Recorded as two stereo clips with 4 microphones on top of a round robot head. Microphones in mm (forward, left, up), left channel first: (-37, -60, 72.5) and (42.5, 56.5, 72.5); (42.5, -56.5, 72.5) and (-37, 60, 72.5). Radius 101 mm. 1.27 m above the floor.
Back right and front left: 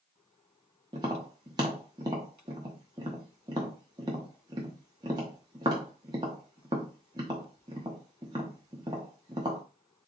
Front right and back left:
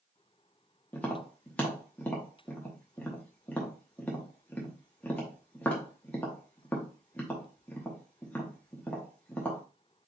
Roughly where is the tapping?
Ahead.